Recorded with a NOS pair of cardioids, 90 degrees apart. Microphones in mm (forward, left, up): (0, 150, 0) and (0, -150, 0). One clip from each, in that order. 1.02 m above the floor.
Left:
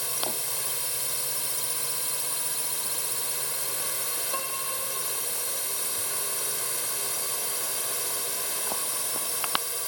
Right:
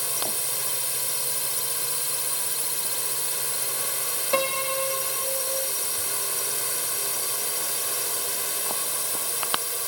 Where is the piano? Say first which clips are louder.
Right 13 dB; 60° right.